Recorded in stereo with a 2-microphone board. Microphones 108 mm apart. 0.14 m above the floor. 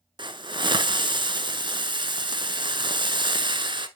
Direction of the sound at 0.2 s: 50° right (ahead or behind).